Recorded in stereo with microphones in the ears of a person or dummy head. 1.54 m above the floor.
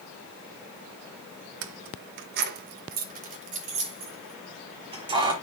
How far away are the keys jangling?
About 0.9 m.